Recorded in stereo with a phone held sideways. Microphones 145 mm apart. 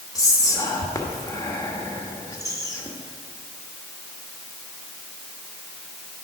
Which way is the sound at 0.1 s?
25° left (ahead or behind).